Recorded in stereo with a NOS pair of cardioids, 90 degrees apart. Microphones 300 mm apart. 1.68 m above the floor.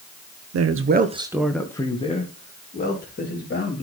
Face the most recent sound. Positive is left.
turn(degrees=35)